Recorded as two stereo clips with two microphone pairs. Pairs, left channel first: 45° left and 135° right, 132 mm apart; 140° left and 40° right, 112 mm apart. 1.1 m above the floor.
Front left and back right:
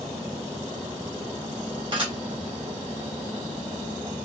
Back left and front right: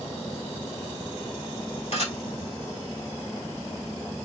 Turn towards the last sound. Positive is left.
turn(degrees=175)